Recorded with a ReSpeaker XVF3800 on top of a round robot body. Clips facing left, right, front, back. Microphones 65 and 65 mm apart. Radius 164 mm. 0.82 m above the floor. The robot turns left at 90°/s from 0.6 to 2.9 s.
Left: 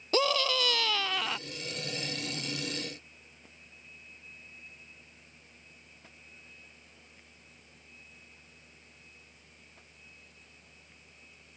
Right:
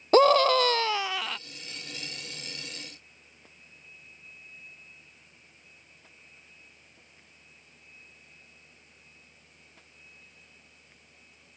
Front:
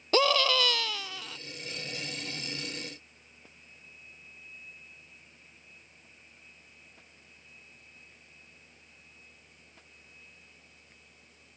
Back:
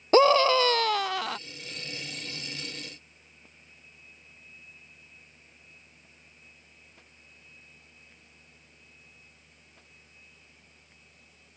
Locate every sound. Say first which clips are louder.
0.1 s a scream: right 10 dB, back 7 dB; 125° right; by 1.4 s 165° left